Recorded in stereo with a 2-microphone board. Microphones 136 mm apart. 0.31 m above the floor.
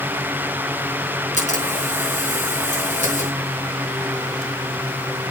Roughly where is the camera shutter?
Left.